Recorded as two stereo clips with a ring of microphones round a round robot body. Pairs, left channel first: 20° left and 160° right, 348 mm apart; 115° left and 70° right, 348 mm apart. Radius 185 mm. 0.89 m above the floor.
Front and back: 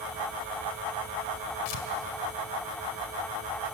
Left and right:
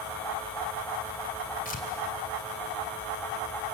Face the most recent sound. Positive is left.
turn(degrees=45)